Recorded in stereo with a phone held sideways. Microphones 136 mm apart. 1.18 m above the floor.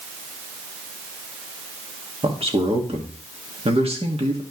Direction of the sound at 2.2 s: 50° right (ahead or behind).